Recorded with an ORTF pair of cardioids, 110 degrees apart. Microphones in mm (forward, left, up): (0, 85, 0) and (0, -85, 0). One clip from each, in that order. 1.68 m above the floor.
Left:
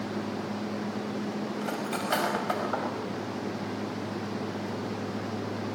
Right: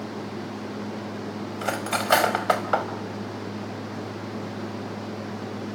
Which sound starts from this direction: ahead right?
Cutlery clinking, at 1.6 s.